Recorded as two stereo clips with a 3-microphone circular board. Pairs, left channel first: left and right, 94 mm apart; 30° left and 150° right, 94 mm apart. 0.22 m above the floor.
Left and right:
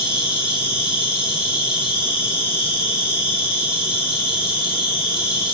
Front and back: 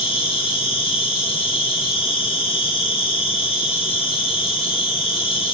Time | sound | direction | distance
0.0 | an insect | 25° left | 6 m